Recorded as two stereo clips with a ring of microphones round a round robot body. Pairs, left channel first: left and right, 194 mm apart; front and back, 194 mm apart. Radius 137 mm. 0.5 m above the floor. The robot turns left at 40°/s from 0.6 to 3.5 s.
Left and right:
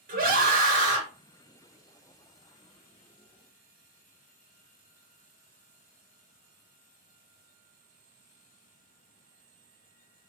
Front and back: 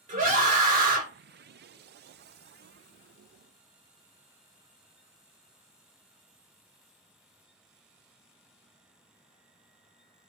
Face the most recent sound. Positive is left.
turn(degrees=110)